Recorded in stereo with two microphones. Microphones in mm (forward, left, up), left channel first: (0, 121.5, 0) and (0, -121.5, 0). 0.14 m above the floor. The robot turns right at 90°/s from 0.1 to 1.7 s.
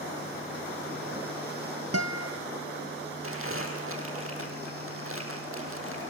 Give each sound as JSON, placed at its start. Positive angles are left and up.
{"t": 1.9, "sound": "a guitar", "side_deg": -75, "distance_m": 1.1}
{"t": 3.2, "sound": "crumpling", "side_deg": -60, "distance_m": 4.0}